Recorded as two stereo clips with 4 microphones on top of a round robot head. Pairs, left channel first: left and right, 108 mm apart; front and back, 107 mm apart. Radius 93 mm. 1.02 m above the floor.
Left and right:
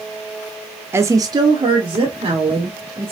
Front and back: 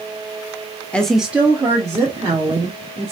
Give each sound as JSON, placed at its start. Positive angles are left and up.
{"t": 0.9, "sound": "a woman speaking", "azimuth_deg": -60, "distance_m": 0.6}